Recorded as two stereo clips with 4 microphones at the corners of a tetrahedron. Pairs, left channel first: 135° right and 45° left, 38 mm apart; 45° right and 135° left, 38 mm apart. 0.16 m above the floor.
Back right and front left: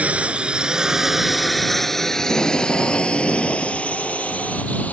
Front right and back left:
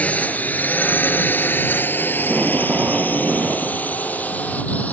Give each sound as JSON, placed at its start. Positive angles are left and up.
{"t": 0.0, "sound": "a drone", "azimuth_deg": -5}
{"t": 2.2, "sound": "tape being pulled", "azimuth_deg": -175}